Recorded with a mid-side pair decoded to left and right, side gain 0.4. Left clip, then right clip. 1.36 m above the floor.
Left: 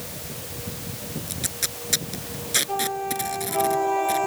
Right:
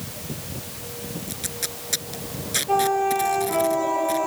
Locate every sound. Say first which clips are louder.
1.3 s tape being pulled: left 3 dB; 15° left